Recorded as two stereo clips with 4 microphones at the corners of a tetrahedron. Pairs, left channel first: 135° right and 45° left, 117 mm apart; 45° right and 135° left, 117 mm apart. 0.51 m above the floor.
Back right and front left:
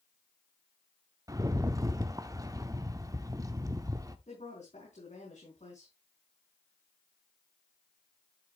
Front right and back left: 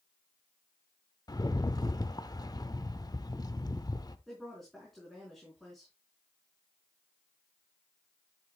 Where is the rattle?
5° right, 0.8 m.